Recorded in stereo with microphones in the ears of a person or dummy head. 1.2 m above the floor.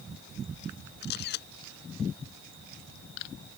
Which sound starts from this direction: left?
A camera shutter, at 1.0 s.